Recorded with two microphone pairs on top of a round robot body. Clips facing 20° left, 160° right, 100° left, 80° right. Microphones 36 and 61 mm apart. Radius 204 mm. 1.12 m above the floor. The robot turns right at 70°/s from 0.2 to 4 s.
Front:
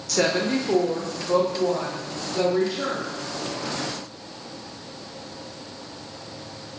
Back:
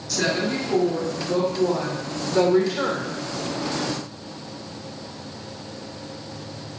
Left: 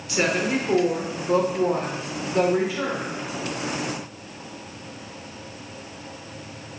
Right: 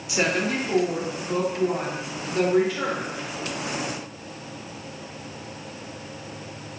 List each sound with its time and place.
0.1 s a woman speaking: 5° left, 0.9 m; by 3.1 s 150° right, 0.9 m